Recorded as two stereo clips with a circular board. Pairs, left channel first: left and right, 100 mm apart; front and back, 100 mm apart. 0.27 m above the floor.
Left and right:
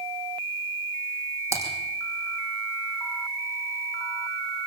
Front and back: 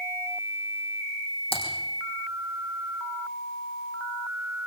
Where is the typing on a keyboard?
30° right, 5 m.